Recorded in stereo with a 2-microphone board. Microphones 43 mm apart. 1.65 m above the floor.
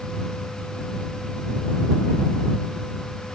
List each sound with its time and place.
Only background noise.